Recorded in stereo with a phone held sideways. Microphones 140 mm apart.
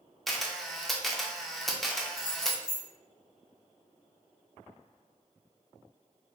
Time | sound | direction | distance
0.3 | a camera shutter | centre (ahead or behind) | 0.5 m
2.2 | keys jangling | 20° left (ahead or behind) | 1.9 m